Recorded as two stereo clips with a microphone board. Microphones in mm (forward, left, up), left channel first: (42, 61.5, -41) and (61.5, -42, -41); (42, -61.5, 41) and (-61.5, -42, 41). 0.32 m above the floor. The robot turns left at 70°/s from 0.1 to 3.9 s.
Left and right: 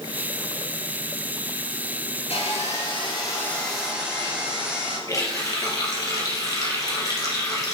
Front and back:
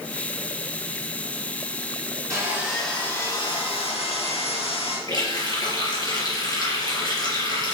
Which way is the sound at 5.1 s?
45° left.